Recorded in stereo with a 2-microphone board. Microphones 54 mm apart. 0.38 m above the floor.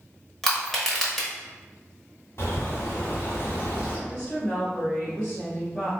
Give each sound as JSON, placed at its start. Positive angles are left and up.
{"t": 0.4, "sound": "crushing", "side_deg": 5, "distance_m": 1.0}
{"t": 2.4, "sound": "a bird", "side_deg": 50, "distance_m": 1.9}
{"t": 4.1, "sound": "a woman speaking", "side_deg": 5, "distance_m": 1.8}